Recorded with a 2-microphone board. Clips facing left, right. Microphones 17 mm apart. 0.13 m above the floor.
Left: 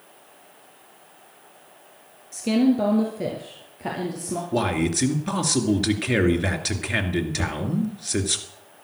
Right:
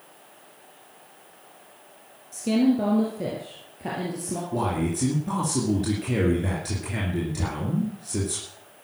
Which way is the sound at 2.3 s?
20° left (ahead or behind).